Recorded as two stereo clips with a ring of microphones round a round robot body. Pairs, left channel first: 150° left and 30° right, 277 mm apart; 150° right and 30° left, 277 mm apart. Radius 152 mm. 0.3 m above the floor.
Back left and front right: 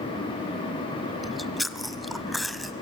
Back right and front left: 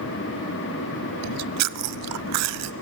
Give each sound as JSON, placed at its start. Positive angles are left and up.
{"t": 1.2, "sound": "chewing", "azimuth_deg": 60, "distance_m": 0.6}